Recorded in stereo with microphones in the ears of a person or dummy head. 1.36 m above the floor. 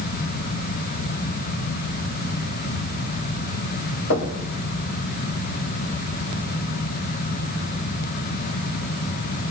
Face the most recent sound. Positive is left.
turn(degrees=75)  # may be behind; listen again after turning